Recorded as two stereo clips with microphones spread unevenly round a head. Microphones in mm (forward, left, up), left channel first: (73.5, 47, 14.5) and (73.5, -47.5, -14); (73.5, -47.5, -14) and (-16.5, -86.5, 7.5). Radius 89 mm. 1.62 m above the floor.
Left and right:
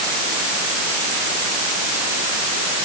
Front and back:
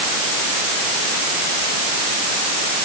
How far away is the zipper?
I don't hear a zipper.